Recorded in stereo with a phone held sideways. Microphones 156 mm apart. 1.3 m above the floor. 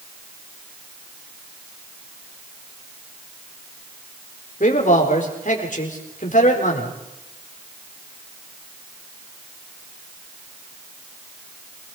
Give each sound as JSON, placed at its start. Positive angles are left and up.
{"t": 4.6, "sound": "a man speaking", "side_deg": 60, "distance_m": 4.5}